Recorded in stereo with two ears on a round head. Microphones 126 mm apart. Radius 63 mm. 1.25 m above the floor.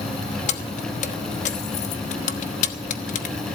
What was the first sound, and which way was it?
Keys jangling, 55° left (ahead or behind).